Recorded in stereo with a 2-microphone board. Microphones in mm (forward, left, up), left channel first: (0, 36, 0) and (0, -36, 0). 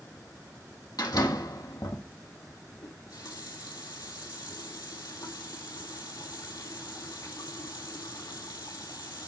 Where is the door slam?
65° left (ahead or behind), 3.5 m.